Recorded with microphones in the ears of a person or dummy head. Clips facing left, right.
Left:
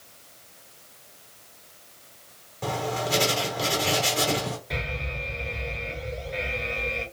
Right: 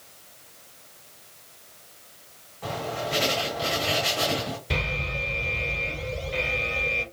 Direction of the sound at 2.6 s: 55° left (ahead or behind).